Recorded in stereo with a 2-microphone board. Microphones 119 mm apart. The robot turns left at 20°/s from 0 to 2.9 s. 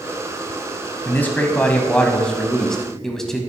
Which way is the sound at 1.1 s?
15° left (ahead or behind).